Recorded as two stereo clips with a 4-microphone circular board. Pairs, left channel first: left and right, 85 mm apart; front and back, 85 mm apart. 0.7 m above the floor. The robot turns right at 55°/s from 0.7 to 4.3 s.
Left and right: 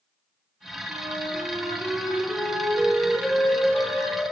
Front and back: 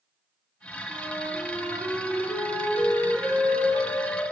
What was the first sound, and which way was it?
A flute, 125° right.